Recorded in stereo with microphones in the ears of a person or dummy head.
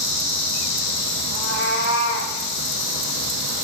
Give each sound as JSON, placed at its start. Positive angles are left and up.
{"t": 1.3, "sound": "a cat meowing", "side_deg": 70, "distance_m": 5.5}